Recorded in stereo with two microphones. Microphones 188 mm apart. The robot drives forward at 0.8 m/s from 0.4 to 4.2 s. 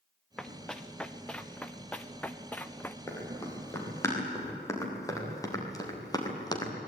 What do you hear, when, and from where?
0.4 s running footsteps: 5° left (ahead or behind), 1.7 m; by 3.0 s 10° left (ahead or behind), 1.1 m
3.1 s running footsteps: 15° left (ahead or behind), 8 m; by 6.7 s 20° left (ahead or behind), 4.5 m